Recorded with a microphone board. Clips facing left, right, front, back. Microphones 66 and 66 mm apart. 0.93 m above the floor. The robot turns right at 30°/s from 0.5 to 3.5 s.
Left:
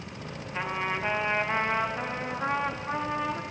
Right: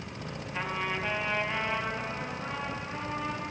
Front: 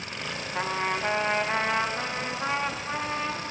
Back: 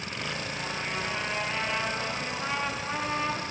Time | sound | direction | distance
0.5 | a trumpet | 10° left | 0.9 m